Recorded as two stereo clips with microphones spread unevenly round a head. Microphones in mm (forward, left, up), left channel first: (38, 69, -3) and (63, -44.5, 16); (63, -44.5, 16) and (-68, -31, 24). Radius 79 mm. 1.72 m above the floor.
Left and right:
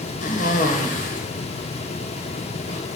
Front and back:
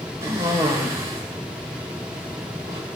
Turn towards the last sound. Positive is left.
turn(degrees=100)